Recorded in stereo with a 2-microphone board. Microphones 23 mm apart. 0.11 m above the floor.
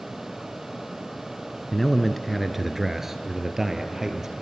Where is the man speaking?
10° left (ahead or behind), 1.1 m; by 4.3 s 25° right (ahead or behind), 2.5 m.